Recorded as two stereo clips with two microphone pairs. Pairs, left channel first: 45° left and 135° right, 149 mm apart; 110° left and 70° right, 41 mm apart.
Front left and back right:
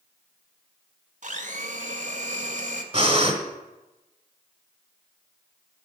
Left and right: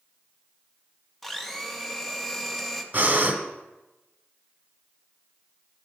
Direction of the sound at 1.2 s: 160° right.